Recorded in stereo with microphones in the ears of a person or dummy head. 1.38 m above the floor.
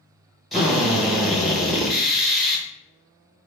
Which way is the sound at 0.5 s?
Centre (ahead or behind).